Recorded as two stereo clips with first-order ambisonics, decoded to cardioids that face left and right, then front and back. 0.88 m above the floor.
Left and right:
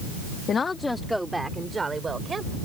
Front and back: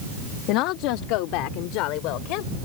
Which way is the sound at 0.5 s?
25° left.